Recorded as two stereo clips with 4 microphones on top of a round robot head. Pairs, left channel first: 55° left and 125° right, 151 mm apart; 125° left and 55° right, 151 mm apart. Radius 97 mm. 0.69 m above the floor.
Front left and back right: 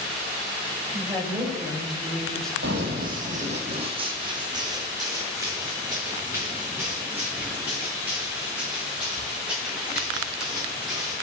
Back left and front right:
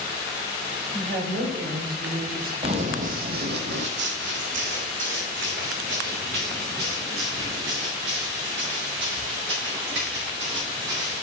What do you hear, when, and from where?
0.9 s a woman speaking: 40° right, 4 m; by 3.6 s 10° right, 1.7 m
2.6 s running footsteps: 110° right, 1.2 m; by 11.1 s 40° right, 7.5 m